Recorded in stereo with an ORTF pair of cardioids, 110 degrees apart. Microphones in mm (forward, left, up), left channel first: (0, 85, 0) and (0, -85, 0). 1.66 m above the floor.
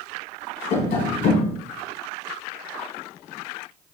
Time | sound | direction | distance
0.7 | tapping | 60° left | 1.3 m